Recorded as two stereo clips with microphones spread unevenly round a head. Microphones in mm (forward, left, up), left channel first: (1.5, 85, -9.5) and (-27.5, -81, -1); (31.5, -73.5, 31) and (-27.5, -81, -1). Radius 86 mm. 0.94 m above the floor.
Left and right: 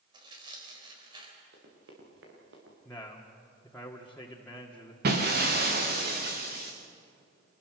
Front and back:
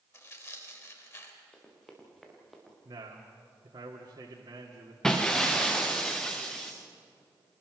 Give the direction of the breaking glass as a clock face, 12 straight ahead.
2 o'clock.